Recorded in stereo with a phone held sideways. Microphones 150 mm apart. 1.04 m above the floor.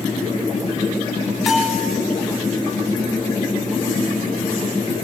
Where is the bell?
Centre (ahead or behind), 1.2 m.